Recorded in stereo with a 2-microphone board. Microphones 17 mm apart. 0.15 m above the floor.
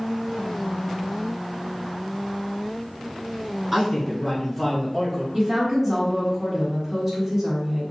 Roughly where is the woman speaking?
Centre.